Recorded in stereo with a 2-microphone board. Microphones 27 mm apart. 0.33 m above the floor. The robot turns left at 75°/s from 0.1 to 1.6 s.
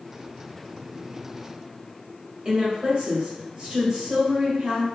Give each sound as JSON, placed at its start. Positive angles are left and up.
{"t": 2.5, "sound": "a woman speaking", "side_deg": -35, "distance_m": 1.2}